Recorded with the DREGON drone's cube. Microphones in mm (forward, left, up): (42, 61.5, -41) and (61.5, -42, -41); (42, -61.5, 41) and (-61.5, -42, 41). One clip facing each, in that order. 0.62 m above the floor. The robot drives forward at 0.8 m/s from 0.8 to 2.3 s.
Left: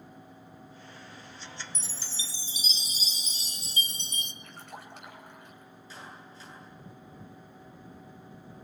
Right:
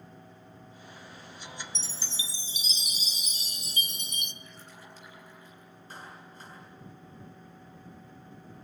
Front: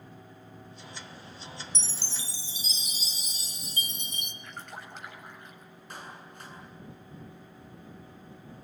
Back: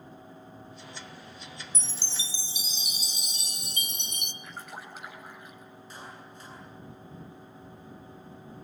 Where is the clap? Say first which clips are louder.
Right 1 dB, front 2 dB; 40° right, 8.5 m.